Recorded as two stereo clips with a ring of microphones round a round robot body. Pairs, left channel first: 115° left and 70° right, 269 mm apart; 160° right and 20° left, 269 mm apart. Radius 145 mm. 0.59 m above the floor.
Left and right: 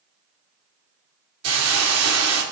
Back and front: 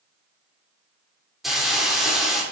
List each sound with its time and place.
1.4 s a hiss: 65° right, 2 m